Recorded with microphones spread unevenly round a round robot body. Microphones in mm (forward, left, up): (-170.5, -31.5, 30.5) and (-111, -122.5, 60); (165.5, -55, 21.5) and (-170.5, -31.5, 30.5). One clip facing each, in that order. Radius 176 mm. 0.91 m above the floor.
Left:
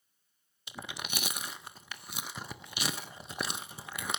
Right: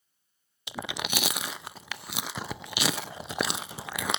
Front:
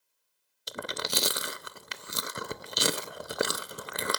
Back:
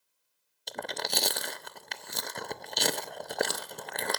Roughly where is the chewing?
Right.